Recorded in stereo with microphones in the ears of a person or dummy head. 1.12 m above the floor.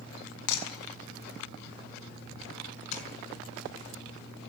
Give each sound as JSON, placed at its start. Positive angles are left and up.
{"t": 0.5, "sound": "breaking glass", "side_deg": 70, "distance_m": 6.0}
{"t": 2.9, "sound": "tapping", "side_deg": 45, "distance_m": 5.5}